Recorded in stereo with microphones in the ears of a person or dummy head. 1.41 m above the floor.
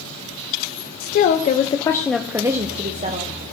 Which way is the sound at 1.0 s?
50° left (ahead or behind).